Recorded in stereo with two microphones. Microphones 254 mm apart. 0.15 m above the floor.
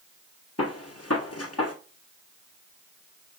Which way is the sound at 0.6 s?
70° left (ahead or behind).